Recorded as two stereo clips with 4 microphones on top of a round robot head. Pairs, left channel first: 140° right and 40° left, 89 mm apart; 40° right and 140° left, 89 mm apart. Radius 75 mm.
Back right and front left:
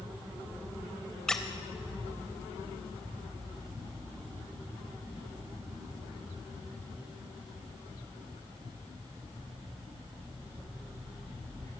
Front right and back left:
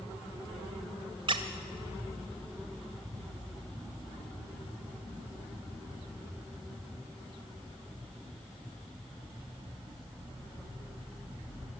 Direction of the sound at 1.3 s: 135° left.